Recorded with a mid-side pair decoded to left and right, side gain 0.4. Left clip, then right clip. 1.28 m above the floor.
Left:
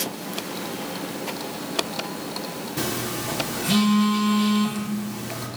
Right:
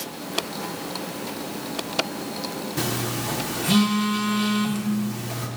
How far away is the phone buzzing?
About 0.6 m.